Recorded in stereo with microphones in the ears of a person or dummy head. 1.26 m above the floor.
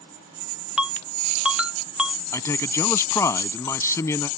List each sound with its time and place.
0.8 s a ringtone: 5° right (ahead or behind)
2.3 s a man speaking: 15° left (ahead or behind)